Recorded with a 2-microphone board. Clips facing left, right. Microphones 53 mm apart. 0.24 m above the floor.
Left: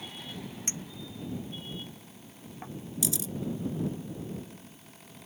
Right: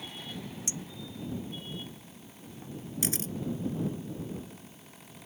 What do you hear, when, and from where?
0.7 s a clink: 40° left (ahead or behind)
3.0 s a camera shutter: 45° right (ahead or behind)